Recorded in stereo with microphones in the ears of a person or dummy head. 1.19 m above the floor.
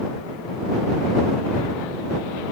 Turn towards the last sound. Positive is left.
No sound to turn to.